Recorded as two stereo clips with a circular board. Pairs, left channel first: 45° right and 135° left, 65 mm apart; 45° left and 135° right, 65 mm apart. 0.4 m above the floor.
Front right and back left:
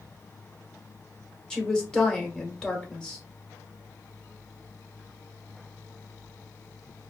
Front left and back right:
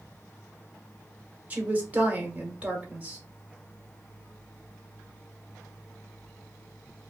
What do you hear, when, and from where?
1.5 s a woman speaking: 105° right, 1.1 m